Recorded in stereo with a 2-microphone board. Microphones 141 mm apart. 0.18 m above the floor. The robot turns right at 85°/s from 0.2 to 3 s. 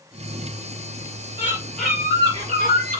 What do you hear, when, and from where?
1.4 s a bird: 140° left, 3.5 m; by 3.0 s 85° right, 3.5 m